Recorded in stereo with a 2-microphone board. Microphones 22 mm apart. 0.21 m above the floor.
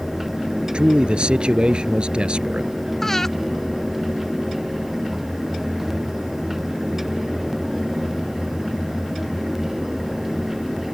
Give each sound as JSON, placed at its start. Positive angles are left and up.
{"t": 0.7, "sound": "a man speaking", "side_deg": -55}
{"t": 3.0, "sound": "breathing", "side_deg": 20}